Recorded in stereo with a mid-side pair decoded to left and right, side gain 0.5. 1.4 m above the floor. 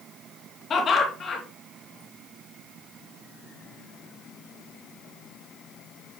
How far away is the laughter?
About 2.5 m.